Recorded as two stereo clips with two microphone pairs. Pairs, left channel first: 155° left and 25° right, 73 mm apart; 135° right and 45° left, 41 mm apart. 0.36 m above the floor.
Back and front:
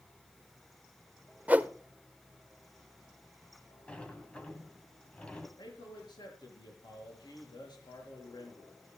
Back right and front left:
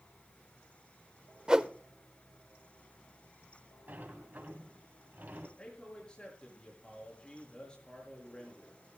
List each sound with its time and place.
1.5 s a whoosh: 15° left, 0.6 m
3.9 s a sliding door: 80° left, 2 m
5.6 s a man speaking: 155° left, 6 m